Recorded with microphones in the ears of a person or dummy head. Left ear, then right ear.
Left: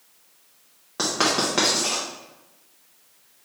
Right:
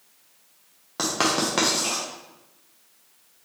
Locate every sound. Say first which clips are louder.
1.0 s writing: left 1 dB; 10° right (ahead or behind), 0.7 m